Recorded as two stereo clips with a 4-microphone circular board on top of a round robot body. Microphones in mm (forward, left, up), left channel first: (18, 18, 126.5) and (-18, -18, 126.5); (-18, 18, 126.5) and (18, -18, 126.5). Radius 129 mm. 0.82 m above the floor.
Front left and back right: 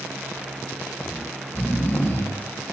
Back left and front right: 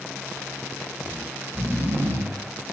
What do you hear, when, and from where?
1.0 s snoring: 5° right, 9.5 m